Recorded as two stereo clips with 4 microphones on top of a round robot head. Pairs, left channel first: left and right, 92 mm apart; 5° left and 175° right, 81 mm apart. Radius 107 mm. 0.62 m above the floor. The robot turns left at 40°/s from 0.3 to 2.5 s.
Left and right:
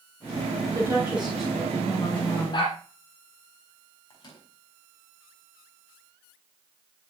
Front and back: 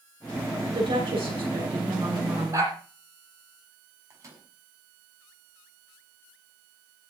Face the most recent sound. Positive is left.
turn(degrees=135)